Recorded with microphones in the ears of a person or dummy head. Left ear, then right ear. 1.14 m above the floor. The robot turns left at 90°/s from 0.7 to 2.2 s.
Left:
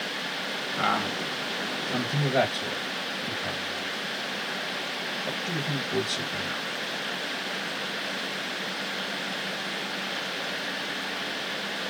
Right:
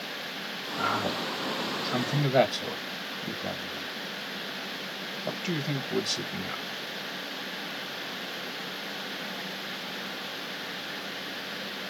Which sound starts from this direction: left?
A man speaking, at 0.8 s.